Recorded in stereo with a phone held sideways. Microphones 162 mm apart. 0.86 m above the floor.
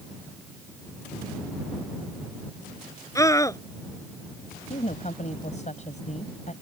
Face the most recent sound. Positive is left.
turn(degrees=45)  # may be behind; listen again after turning